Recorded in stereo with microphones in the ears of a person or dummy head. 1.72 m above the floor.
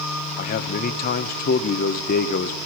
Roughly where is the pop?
No pop in this recording.